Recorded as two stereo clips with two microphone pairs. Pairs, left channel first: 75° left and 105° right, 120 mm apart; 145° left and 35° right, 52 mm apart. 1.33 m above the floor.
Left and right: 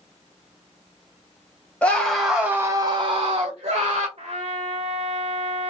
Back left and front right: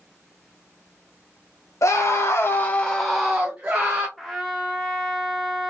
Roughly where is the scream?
Behind left.